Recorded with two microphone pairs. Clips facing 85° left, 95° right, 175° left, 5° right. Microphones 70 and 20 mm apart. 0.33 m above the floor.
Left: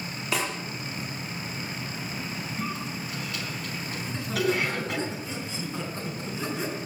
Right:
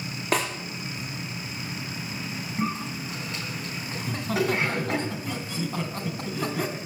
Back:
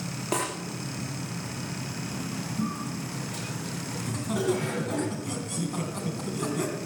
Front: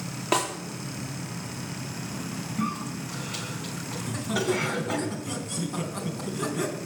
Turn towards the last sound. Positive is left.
turn(degrees=-95)